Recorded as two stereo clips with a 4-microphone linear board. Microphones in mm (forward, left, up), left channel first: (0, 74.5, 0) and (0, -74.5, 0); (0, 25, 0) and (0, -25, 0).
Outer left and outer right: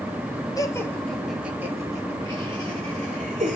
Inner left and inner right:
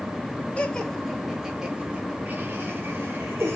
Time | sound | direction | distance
0.6 | laughter | 25° left (ahead or behind) | 1.1 m